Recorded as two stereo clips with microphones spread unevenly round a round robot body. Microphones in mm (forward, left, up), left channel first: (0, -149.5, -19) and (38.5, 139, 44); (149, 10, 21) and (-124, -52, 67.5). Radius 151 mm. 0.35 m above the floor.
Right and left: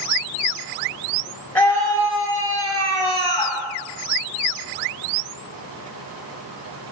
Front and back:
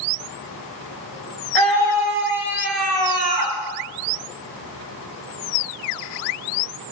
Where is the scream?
Straight behind, 6.5 m; by 3.6 s 170° right, 6 m.